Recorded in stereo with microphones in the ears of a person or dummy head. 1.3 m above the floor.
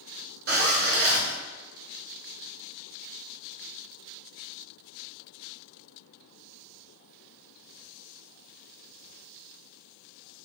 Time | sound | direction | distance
0.5 | a zipper | 50° right (ahead or behind) | 0.7 m